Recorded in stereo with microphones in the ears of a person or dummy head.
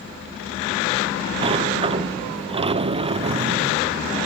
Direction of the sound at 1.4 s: 30° right (ahead or behind).